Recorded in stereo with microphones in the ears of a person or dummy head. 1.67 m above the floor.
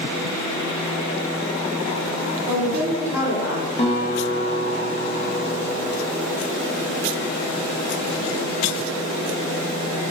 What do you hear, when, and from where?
2.5 s a woman speaking: 15° right (ahead or behind), 1.4 m
3.8 s a guitar: 40° left (ahead or behind), 0.9 m